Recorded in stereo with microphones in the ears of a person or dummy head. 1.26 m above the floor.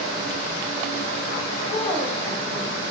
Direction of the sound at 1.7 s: 25° left (ahead or behind).